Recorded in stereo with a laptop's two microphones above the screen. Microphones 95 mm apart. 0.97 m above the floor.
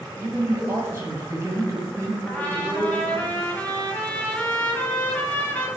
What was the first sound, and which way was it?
A man speaking, 30° right (ahead or behind).